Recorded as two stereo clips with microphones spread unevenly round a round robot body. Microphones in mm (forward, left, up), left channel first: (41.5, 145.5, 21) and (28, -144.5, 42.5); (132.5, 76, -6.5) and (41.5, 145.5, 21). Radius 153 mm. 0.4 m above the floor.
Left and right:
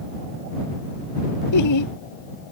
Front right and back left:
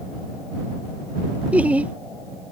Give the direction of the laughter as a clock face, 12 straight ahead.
10 o'clock.